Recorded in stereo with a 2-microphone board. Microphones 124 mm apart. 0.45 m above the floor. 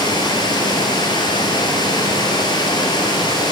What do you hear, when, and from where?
0.0 s running water: 35° left (ahead or behind), 5 m